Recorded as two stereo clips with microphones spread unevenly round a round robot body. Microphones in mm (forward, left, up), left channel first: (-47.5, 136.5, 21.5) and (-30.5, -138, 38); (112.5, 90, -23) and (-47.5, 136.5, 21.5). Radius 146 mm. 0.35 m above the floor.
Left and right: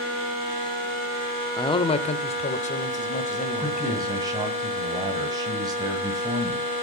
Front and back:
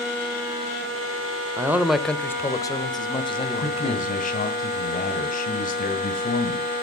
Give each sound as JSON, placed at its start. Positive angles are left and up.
{"t": 1.6, "sound": "a man speaking", "azimuth_deg": 80, "distance_m": 0.8}
{"t": 3.6, "sound": "a man speaking", "azimuth_deg": -10, "distance_m": 1.9}